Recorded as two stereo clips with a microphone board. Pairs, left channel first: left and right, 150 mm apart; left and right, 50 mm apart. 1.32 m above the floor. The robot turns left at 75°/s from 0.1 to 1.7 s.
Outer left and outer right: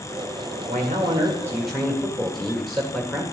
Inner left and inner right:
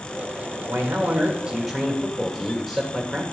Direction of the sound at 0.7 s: 105° right.